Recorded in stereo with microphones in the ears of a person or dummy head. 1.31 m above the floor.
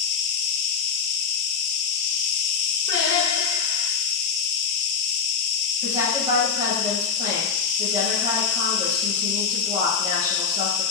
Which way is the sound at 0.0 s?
35° left (ahead or behind).